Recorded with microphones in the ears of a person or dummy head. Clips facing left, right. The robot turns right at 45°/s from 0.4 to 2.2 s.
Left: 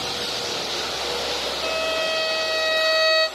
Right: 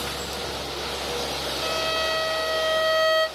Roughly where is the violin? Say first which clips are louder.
Left 3 dB; right.